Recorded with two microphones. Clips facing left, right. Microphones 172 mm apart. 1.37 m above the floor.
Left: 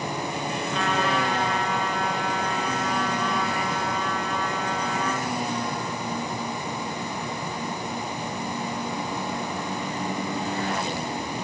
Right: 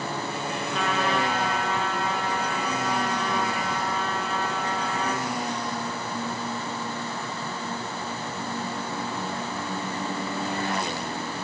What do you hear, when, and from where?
0.7 s a trumpet: centre (ahead or behind), 5.5 m